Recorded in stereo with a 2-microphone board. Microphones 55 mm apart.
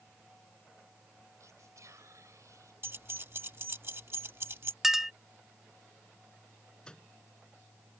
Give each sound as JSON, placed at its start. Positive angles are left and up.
{"t": 1.4, "sound": "whispering", "side_deg": -75}
{"t": 2.8, "sound": "keys jangling", "side_deg": -50}
{"t": 4.8, "sound": "a clink", "side_deg": -10}
{"t": 6.8, "sound": "a microwave", "side_deg": 15}